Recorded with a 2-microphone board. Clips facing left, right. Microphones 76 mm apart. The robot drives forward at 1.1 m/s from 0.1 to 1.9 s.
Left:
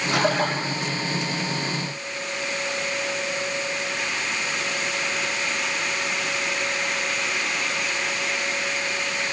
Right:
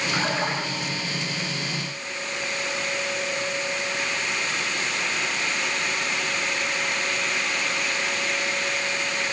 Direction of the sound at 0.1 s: 75° left (ahead or behind).